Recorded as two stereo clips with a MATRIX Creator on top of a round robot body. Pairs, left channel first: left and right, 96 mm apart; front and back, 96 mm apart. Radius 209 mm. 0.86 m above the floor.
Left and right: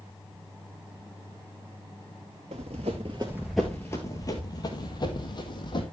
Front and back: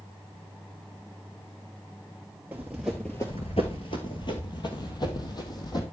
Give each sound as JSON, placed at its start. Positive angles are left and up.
{"t": 2.5, "sound": "running footsteps", "azimuth_deg": -105, "distance_m": 1.1}